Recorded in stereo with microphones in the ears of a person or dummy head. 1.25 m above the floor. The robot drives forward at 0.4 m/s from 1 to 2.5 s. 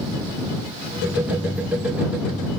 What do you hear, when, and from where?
Only background noise.